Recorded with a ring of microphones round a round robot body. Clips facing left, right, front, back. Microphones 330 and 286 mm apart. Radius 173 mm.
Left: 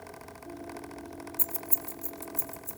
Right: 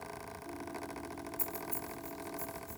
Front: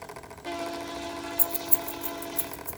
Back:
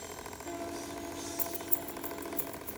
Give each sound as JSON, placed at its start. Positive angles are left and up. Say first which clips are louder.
{"t": 1.4, "sound": "keys jangling", "louder": "left 1 dB, front 4 dB", "azimuth_deg": 30, "distance_m": 0.7}